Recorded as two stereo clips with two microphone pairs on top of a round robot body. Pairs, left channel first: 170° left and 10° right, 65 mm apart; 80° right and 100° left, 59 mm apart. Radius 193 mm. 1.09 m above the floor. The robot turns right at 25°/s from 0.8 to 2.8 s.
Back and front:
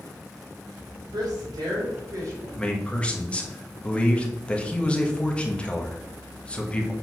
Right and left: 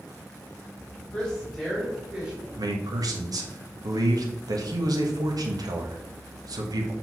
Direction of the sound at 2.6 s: 90° left.